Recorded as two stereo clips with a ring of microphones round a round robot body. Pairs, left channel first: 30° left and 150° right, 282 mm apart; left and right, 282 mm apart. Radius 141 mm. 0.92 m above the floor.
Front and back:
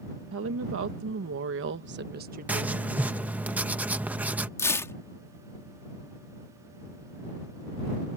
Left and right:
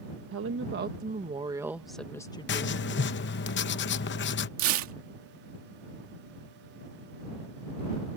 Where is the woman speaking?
120° right; by 2.7 s 150° left.